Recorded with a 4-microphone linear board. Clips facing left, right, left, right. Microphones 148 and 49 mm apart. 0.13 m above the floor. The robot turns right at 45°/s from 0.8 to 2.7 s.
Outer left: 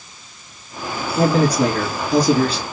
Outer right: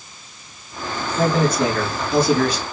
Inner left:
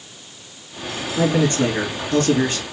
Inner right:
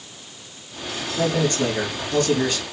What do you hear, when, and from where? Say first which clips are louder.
1.2 s a man speaking: outer left 2 dB, inner left 3 dB; 60° left, 1.6 m; by 2.6 s 125° left, 1.6 m